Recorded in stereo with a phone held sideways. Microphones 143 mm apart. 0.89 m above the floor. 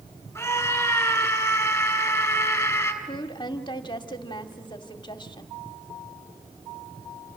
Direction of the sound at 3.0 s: 35° left (ahead or behind).